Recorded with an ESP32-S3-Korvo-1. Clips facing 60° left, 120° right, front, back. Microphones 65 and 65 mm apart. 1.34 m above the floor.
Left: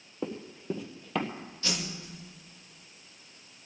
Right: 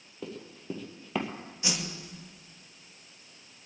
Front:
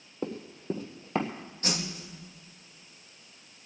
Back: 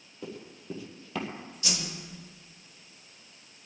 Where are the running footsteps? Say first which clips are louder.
Left 4 dB, front 6 dB; 10° left, 1.8 m; by 1.3 s 45° right, 1.8 m.